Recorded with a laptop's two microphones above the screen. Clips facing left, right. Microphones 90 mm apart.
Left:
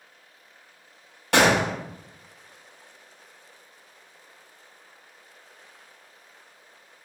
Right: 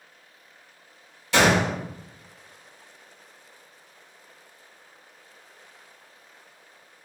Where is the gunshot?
60° left (ahead or behind), 0.8 m.